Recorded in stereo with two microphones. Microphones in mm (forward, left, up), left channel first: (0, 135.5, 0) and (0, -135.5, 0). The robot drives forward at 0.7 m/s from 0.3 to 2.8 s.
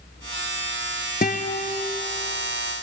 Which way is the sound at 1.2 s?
35° left (ahead or behind).